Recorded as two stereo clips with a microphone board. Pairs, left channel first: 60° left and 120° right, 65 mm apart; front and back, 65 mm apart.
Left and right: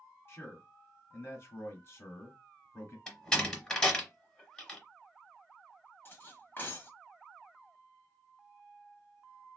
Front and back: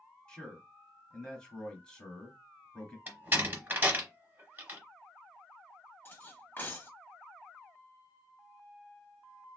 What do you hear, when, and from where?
0.3 s a man speaking: 70° left, 1.3 m
3.1 s a door slam: 135° left, 0.8 m
6.0 s cutlery clinking: 30° left, 0.7 m